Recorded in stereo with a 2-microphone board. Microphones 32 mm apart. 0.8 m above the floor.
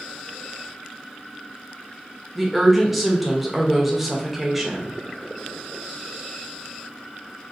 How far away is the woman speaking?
About 0.7 m.